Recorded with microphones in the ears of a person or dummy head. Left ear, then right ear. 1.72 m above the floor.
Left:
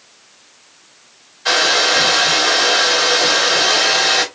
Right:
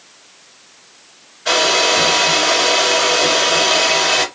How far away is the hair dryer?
About 2.5 m.